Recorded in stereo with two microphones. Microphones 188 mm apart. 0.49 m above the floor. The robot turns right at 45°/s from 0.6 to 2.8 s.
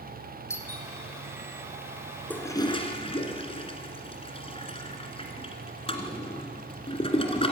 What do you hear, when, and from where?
0.5 s a doorbell: 15° left (ahead or behind), 3 m; by 0.9 s 5° left (ahead or behind), 3 m
2.3 s a toilet flushing: 10° left (ahead or behind), 2 m; by 7.5 s 30° left (ahead or behind), 2 m